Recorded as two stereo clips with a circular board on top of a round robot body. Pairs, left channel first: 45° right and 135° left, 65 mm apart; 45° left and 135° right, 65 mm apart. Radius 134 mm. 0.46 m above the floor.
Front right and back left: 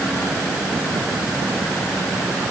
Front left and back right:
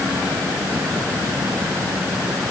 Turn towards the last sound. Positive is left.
No sound to turn to.